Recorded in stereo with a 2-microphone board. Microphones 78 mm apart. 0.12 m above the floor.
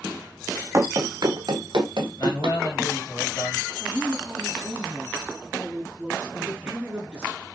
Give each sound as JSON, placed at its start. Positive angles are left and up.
{"t": 0.7, "sound": "running footsteps", "side_deg": -35, "distance_m": 0.6}
{"t": 2.2, "sound": "a man speaking", "side_deg": 55, "distance_m": 3.0}
{"t": 3.8, "sound": "a woman speaking", "side_deg": 5, "distance_m": 1.4}
{"t": 6.4, "sound": "a man speaking", "side_deg": -15, "distance_m": 1.5}